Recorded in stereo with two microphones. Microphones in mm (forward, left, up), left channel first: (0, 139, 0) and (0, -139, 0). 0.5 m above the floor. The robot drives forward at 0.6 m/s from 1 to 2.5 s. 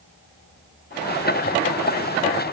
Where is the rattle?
No rattle in this recording.